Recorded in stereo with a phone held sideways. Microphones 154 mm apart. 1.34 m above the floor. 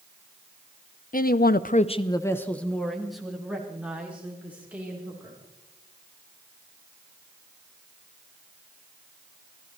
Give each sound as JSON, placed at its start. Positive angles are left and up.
{"t": 1.1, "sound": "a man speaking", "side_deg": 65, "distance_m": 0.8}